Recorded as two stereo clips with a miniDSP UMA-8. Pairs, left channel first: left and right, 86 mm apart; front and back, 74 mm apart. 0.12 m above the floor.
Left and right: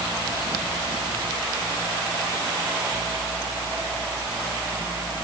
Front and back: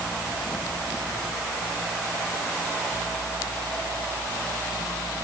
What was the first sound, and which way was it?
Only background noise.